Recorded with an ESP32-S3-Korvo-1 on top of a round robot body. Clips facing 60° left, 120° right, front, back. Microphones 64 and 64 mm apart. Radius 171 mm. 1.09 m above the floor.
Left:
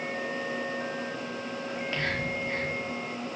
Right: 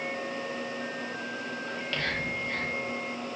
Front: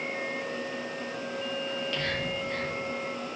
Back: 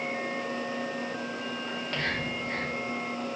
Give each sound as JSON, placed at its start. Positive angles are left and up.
{"t": 1.7, "sound": "whispering", "azimuth_deg": 125, "distance_m": 2.5}